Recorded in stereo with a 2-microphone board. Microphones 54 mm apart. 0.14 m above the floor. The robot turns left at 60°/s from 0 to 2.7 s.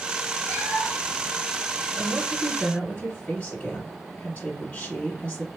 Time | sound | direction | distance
0.4 | a cat meowing | 140° left | 1.5 m
2.0 | a woman speaking | 90° left | 1.9 m